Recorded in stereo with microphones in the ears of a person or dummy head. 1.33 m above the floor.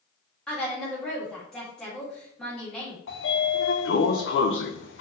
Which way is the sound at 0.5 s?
5° left (ahead or behind).